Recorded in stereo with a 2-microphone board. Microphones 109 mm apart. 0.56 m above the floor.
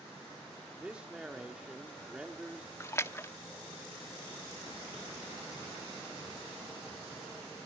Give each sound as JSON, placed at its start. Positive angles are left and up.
{"t": 0.8, "sound": "a man speaking", "side_deg": -10, "distance_m": 1.2}
{"t": 2.8, "sound": "a splash", "side_deg": 25, "distance_m": 0.6}